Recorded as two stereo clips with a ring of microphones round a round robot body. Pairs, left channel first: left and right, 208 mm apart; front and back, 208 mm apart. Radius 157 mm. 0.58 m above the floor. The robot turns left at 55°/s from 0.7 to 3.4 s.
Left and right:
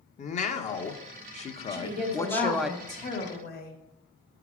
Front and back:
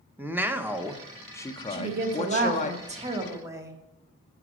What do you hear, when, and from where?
0.2 s a man speaking: 105° left, 0.8 m; by 2.7 s 5° right, 0.8 m
1.7 s a woman speaking: 160° right, 1.5 m; by 3.8 s 110° left, 1.5 m